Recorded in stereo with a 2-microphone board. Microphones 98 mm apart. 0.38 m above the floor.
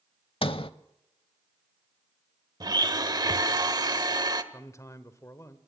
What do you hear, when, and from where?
0.4 s a sliding door: 65° left (ahead or behind), 0.7 m
2.6 s a blender: 45° right (ahead or behind), 1.1 m
4.5 s a man speaking: 30° left (ahead or behind), 1.2 m